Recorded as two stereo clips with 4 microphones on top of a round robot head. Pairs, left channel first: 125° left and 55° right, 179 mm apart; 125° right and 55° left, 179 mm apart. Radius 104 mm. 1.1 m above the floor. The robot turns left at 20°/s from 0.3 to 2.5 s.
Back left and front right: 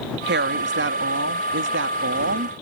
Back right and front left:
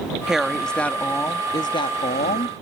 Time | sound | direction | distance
0.3 | a woman speaking | 30° right | ?